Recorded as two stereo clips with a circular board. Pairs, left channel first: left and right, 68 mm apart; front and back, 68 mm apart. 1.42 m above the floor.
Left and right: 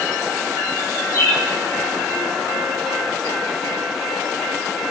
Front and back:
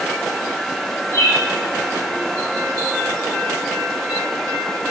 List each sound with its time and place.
1.1 s a bird: 45° left, 1.0 m